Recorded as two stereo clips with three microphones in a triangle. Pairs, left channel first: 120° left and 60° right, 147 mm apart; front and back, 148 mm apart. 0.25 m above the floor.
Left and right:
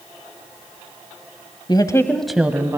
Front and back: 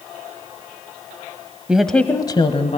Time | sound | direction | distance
1.7 | a woman speaking | 105° left | 1.2 m